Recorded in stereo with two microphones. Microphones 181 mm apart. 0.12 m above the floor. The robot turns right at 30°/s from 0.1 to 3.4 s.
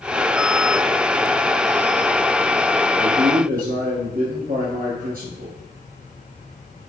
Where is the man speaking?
50° right (ahead or behind), 2.5 m.